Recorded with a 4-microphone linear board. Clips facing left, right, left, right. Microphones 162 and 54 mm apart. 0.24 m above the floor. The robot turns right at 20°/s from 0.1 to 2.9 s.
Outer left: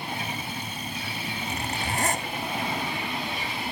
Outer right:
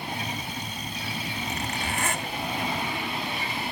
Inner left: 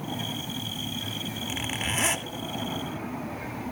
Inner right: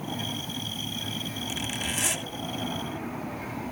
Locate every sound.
1.5 s a zipper: 35° left (ahead or behind), 1.3 m; by 2.3 s 40° left (ahead or behind), 1.3 m